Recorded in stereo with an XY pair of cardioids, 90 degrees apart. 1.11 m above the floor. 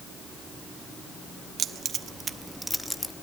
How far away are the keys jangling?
About 1.1 m.